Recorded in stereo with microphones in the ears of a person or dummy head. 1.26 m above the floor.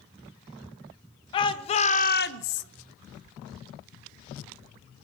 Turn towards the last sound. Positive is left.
turn(degrees=75)  # may be behind; listen again after turning